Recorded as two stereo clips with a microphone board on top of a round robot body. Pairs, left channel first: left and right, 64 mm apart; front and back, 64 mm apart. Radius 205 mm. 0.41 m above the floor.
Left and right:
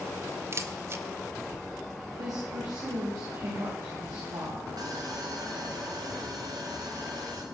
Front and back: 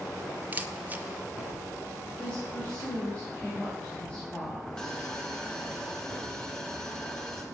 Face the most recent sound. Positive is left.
turn(degrees=-80)